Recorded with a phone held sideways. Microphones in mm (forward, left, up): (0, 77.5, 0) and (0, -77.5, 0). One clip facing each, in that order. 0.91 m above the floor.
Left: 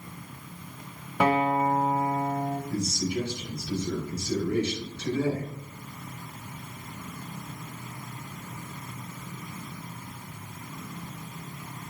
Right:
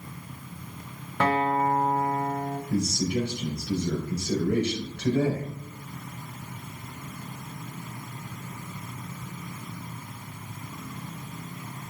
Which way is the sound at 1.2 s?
15° left (ahead or behind).